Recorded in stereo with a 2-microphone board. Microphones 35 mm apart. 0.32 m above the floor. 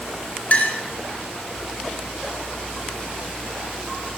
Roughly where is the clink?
Left.